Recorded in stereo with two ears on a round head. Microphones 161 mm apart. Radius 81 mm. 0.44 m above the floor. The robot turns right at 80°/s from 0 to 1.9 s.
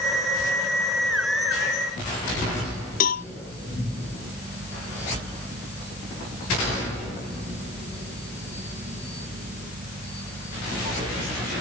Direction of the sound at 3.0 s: 50° left (ahead or behind).